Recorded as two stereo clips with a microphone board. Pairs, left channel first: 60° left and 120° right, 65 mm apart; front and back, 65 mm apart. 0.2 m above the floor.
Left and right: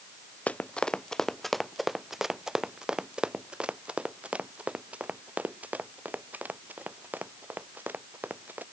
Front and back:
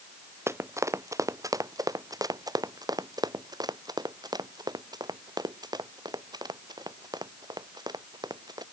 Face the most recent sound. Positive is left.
turn(degrees=180)